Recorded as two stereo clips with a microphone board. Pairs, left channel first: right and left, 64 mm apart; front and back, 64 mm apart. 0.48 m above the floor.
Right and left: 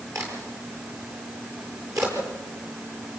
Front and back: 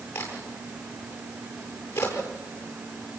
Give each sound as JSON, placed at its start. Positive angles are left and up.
{"t": 0.1, "sound": "a crack", "azimuth_deg": 55, "distance_m": 9.0}